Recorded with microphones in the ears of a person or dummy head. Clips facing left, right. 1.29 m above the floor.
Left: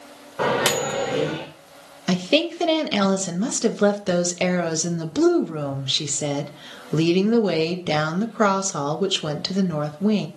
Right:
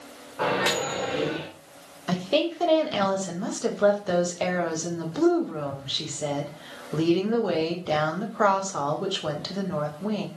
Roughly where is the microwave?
Left.